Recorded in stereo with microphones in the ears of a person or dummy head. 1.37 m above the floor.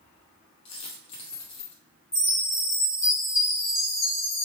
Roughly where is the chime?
Left.